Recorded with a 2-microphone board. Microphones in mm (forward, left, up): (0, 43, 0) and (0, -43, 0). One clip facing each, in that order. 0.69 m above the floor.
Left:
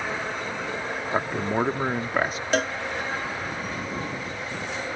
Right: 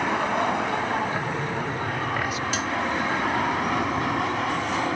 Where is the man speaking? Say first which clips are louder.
Left 2 dB; 40° left (ahead or behind).